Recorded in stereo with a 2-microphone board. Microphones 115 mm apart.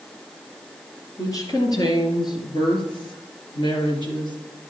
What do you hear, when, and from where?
1.2 s a woman speaking: 30° left (ahead or behind), 2.5 m; by 4.4 s 40° left (ahead or behind), 2.5 m